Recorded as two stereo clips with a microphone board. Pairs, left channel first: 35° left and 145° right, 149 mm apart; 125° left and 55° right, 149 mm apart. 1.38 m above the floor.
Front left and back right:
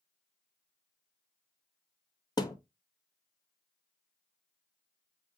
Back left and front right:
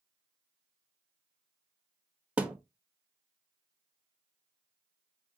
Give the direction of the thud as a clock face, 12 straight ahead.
11 o'clock.